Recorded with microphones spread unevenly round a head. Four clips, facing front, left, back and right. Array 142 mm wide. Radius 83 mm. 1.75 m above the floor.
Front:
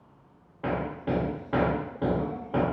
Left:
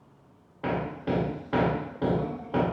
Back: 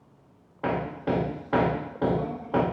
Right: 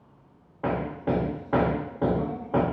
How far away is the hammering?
About 0.8 m.